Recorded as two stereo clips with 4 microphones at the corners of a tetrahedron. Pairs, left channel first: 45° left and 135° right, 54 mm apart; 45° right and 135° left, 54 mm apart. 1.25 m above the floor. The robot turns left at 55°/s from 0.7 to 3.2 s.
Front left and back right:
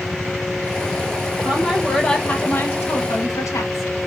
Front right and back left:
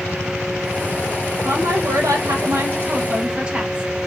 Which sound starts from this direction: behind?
A woman speaking, at 1.4 s.